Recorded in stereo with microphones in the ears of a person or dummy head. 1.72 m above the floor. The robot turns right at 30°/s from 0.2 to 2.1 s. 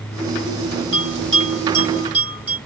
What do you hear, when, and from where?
0.9 s a bell: 40° right (ahead or behind), 1.8 m; by 2.6 s 10° right (ahead or behind), 1.8 m